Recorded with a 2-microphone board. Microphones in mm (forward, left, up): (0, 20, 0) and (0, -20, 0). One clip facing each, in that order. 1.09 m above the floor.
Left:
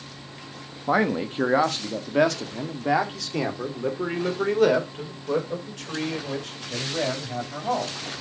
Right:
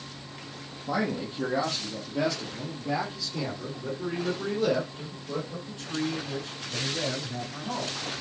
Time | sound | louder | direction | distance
0.9 | a man speaking | left 7 dB | 45° left (ahead or behind) | 1.1 m